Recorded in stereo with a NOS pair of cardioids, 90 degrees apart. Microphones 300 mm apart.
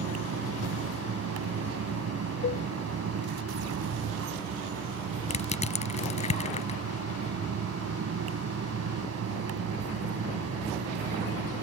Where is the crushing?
20° left.